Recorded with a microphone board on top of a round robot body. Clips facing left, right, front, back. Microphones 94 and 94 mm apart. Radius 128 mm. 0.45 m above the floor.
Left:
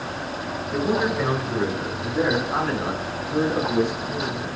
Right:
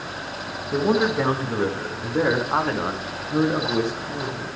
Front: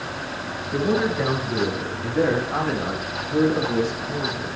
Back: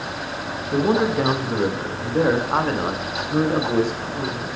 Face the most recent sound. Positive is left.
turn(degrees=-145)